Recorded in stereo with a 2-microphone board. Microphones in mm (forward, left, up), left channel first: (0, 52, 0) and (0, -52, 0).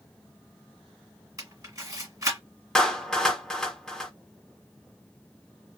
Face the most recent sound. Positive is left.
turn(degrees=5)  # may be behind; listen again after turning